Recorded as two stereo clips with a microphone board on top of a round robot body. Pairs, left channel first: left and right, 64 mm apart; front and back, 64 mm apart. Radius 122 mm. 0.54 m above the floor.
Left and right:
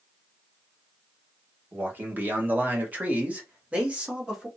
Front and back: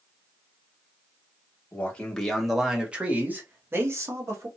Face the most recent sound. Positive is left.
turn(degrees=-165)